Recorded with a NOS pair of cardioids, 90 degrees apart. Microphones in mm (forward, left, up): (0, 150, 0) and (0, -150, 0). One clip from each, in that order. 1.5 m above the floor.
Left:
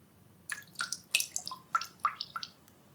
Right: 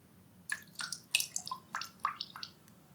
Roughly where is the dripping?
Ahead.